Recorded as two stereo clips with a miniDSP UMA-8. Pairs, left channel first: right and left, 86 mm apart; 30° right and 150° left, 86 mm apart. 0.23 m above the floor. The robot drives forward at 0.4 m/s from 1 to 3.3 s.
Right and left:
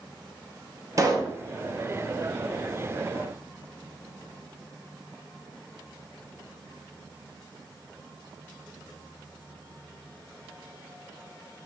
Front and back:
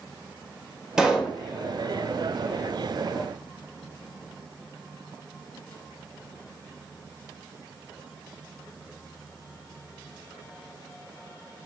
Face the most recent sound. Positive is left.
turn(degrees=125)